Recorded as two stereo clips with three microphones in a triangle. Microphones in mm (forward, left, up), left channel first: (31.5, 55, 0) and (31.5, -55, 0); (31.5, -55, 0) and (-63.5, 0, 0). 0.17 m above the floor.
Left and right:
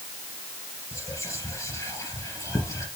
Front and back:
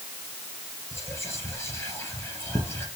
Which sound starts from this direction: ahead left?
Whispering, at 0.9 s.